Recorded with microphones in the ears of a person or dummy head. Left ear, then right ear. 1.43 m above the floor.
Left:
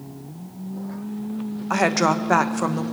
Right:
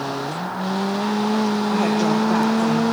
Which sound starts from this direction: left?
A woman speaking, at 1.7 s.